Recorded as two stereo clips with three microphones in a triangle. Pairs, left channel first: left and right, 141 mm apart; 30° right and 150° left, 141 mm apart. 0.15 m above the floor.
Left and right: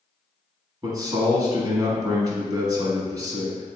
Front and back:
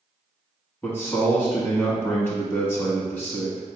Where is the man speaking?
85° right, 1.1 m.